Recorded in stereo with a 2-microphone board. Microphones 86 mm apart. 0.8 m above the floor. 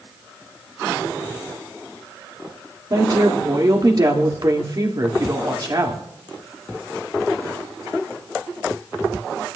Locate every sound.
2.9 s a woman speaking: 45° right (ahead or behind), 2.0 m